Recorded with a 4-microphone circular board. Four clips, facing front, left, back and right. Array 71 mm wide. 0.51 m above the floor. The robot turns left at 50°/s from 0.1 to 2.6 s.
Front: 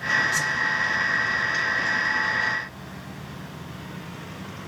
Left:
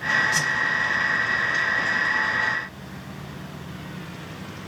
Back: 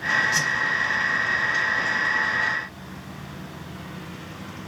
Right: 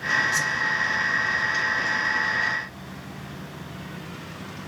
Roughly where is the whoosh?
Behind left.